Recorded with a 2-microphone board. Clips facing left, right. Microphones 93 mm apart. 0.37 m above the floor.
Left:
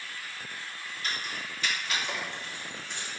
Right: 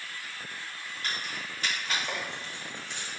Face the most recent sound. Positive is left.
turn(degrees=-10)  # may be behind; listen again after turning